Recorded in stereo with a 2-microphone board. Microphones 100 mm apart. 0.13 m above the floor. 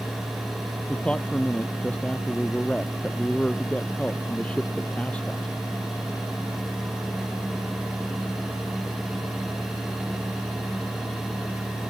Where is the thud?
I don't hear a thud.